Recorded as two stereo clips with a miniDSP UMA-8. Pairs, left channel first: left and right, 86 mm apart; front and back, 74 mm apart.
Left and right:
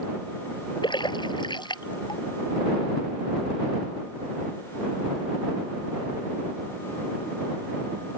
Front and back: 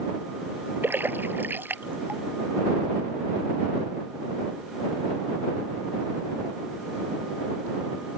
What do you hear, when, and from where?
0.8 s a splash: 120° left